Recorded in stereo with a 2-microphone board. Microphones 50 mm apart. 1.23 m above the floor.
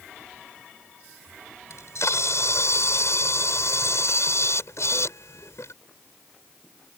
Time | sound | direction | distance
1.7 | a camera shutter | 75° left (ahead or behind) | ?